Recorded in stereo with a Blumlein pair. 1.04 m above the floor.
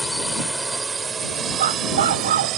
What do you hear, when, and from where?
0.0 s a drone: straight ahead; by 2.6 s 35° right
1.6 s a dog barking: 60° right